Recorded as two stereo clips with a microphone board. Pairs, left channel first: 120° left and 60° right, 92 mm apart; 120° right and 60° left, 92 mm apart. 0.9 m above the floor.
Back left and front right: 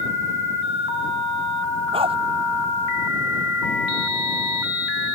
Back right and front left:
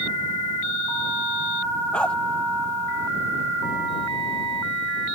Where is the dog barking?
40° right.